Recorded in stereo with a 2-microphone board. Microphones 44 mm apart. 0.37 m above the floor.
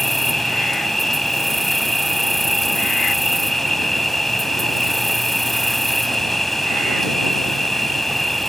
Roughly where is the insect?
Centre.